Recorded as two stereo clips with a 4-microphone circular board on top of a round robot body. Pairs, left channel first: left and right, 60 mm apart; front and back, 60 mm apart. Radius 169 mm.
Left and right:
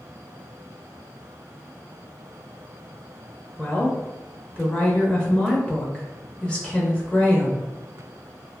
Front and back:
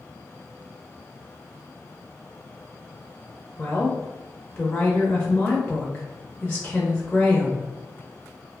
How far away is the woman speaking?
About 0.9 m.